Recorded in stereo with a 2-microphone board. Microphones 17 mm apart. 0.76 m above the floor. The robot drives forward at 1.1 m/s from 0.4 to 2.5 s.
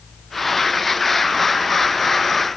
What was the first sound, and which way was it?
Only background noise.